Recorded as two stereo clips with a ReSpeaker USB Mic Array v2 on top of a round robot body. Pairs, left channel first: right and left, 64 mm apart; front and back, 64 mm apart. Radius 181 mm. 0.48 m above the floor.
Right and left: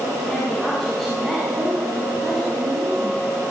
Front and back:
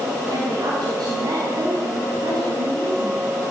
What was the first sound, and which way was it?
A woman speaking, straight behind.